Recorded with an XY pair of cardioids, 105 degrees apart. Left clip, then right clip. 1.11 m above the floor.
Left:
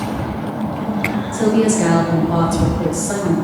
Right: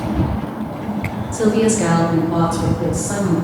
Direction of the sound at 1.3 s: 20° right.